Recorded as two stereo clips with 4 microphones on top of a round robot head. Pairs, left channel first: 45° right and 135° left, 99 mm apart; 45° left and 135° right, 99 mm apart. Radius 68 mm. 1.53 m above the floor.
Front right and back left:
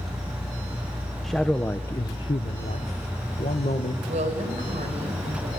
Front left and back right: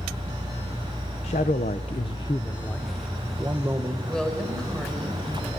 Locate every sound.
1.2 s a man speaking: 45° left, 1.0 m; by 3.9 s 70° right, 1.4 m
4.0 s a woman speaking: 125° left, 5.5 m